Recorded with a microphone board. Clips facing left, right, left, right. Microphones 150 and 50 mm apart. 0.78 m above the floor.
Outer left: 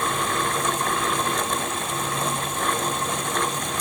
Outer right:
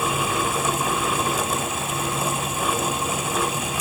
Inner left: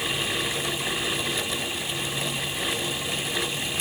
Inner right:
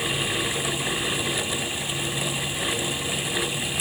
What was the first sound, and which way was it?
Only background noise.